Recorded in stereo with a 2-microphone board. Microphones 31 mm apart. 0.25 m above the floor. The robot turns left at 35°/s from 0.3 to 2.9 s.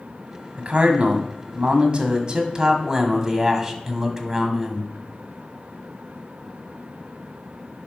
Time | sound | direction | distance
0.6 | a man speaking | 80° right | 1.4 m